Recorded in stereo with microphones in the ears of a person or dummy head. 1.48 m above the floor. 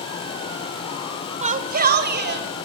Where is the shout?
30° right (ahead or behind), 1.0 m; by 2.6 s 50° right (ahead or behind), 3 m.